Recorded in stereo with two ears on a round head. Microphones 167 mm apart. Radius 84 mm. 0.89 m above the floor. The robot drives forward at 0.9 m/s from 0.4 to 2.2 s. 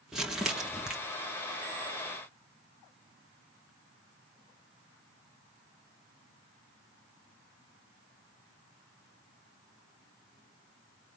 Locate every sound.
0.1 s crumpling: 5° right (ahead or behind), 1.5 m